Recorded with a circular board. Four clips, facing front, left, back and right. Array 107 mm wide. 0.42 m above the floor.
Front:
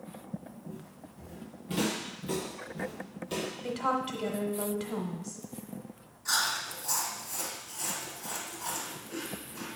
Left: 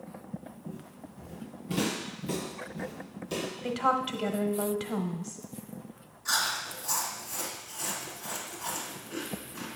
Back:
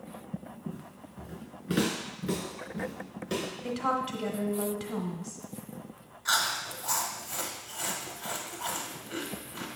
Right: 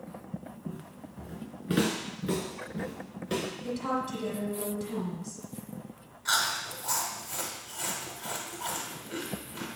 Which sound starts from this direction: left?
A woman speaking, at 3.6 s.